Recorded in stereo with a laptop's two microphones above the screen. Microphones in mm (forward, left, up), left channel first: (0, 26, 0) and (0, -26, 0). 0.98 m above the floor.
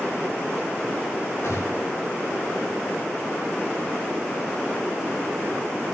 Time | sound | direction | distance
1.4 | a gunshot | 65° left (ahead or behind) | 8 m